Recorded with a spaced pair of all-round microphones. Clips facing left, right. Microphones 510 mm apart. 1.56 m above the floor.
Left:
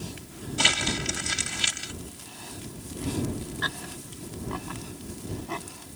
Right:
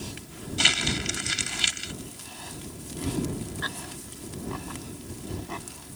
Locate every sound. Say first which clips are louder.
0.6 s crumpling: even; 65° left (ahead or behind)